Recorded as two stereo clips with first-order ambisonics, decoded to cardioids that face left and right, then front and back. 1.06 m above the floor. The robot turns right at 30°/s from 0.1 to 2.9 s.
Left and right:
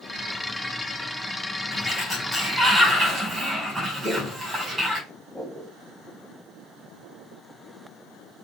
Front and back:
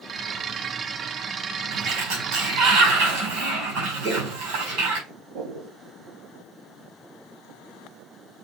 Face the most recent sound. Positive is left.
turn(degrees=175)